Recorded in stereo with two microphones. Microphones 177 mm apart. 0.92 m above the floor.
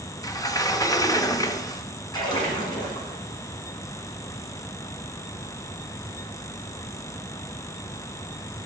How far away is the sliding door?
About 0.6 m.